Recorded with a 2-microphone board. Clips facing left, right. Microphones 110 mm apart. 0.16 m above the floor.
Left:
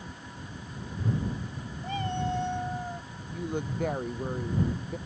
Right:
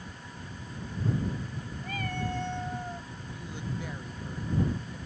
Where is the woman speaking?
55° left (ahead or behind).